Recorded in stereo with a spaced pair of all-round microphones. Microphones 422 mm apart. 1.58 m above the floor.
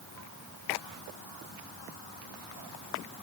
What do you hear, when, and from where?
Only background noise.